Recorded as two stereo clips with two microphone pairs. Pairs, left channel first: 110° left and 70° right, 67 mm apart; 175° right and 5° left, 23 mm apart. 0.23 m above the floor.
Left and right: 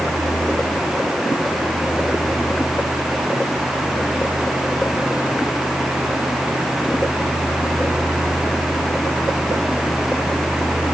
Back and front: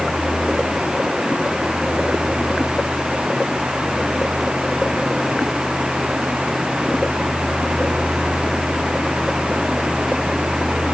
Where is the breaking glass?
I don't hear breaking glass.